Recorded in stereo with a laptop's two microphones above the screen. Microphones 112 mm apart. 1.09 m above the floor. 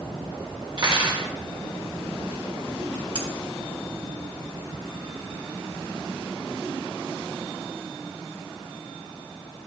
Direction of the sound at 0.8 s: 45° right (ahead or behind).